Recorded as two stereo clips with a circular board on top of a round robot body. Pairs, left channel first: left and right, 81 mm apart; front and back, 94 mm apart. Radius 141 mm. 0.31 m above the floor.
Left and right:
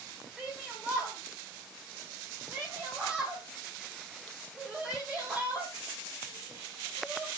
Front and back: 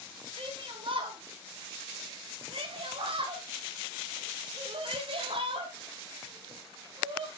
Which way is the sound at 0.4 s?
170° right.